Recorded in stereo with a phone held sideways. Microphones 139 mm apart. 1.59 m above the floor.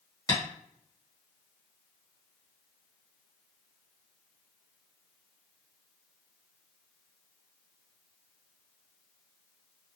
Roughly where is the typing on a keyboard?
I don't hear typing on a keyboard.